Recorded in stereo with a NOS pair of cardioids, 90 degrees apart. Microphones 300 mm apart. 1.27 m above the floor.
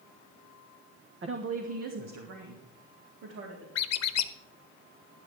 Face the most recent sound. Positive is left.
turn(degrees=60)